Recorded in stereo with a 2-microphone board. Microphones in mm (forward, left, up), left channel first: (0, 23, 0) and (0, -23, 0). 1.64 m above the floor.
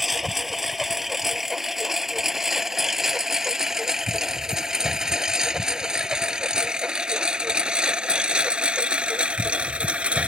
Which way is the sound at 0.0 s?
Centre (ahead or behind).